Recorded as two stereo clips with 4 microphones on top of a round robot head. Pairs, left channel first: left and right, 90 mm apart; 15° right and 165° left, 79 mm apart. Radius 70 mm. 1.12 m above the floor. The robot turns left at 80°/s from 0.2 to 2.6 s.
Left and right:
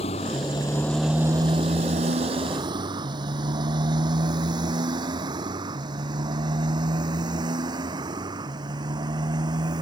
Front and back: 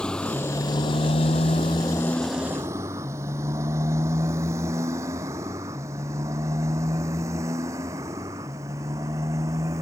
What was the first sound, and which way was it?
A motorcycle, 65° left.